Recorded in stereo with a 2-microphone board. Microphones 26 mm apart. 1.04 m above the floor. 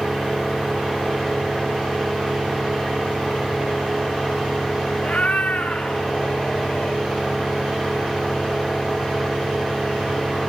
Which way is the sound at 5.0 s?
60° left (ahead or behind).